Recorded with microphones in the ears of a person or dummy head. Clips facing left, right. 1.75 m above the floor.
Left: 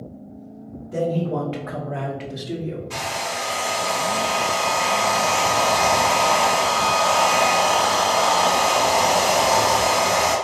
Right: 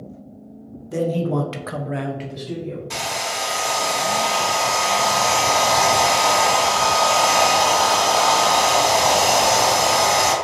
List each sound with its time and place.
0.9 s a man speaking: 75° right (ahead or behind), 1.1 m; by 2.9 s 25° left (ahead or behind), 0.9 m
2.9 s a hair dryer: 70° right (ahead or behind), 1.3 m